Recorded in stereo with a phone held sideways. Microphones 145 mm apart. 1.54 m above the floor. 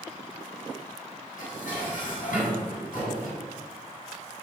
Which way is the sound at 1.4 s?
70° left (ahead or behind).